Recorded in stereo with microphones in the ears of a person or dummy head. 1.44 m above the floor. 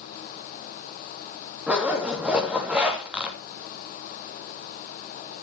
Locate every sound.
1.7 s a zipper: 5° right (ahead or behind), 2.5 m